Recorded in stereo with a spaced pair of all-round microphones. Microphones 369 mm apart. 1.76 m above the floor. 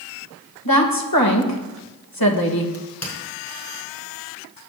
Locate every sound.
0.7 s a woman speaking: 70° left (ahead or behind), 2.5 m
2.7 s a crack: 40° left (ahead or behind), 5.5 m